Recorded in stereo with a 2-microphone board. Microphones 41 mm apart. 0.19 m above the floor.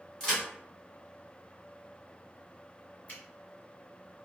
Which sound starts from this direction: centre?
A crack, at 0.2 s.